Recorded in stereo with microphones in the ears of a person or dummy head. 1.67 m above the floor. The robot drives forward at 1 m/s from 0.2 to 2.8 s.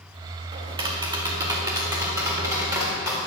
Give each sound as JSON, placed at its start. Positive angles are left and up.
{"t": 0.5, "sound": "tapping", "side_deg": -30, "distance_m": 1.9}